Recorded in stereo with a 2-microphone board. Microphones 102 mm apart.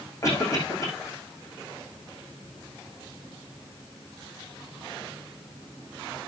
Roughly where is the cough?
Left.